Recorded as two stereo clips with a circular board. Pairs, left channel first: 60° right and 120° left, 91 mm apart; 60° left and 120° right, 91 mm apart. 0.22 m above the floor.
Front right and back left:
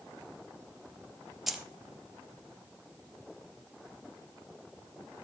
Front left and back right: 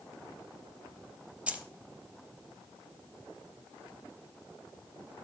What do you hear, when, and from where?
1.5 s keys jangling: 160° right, 0.8 m